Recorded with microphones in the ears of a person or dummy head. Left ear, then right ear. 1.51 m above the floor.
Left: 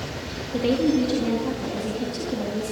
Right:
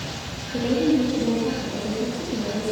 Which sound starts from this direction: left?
A woman speaking, at 0.5 s.